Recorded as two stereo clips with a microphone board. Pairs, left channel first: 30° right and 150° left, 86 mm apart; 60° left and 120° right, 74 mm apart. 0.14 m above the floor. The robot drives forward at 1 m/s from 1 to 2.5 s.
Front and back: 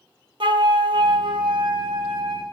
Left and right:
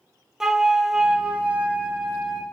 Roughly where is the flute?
Behind left.